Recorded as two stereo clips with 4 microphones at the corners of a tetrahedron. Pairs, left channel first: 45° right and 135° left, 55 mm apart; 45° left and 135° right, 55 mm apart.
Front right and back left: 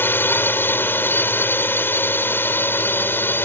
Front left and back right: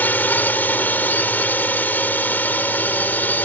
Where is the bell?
I don't hear a bell.